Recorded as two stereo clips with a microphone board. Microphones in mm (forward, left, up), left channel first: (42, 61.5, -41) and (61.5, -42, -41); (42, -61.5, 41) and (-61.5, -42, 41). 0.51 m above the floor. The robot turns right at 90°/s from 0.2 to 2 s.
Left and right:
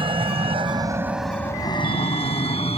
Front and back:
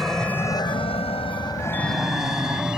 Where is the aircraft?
95° right; by 2.8 s 85° left.